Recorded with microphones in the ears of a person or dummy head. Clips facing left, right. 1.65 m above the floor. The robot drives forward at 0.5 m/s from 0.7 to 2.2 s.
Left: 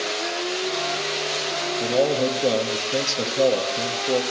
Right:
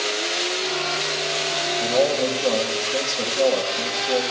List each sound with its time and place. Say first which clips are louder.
1.8 s a man speaking: even; 25° left (ahead or behind), 1.1 m; by 4.2 s 30° left (ahead or behind), 0.9 m